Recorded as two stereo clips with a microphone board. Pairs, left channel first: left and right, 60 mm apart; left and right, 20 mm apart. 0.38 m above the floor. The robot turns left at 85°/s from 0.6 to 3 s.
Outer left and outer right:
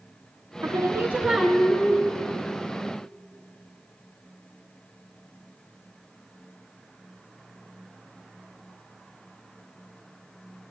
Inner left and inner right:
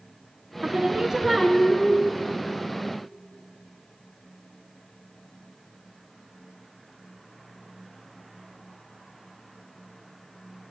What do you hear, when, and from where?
0.6 s singing: 110° right, 0.7 m; by 2.0 s 130° left, 0.7 m